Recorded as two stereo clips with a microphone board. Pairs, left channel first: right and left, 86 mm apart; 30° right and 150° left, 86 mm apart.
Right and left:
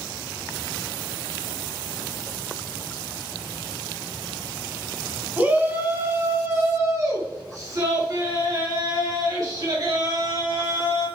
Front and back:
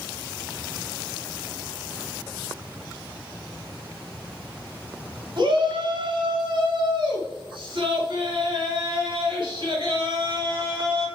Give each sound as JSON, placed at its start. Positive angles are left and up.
{"t": 5.4, "sound": "a shout", "azimuth_deg": 155, "distance_m": 2.5}